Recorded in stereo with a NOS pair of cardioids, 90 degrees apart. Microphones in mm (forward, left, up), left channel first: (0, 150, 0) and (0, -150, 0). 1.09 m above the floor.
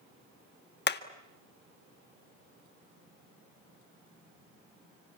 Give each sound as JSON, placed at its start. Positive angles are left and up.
{"t": 0.9, "sound": "hammering", "azimuth_deg": 35, "distance_m": 1.7}